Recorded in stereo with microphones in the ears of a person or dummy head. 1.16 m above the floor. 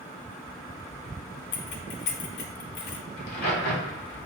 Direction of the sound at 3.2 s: 60° left (ahead or behind).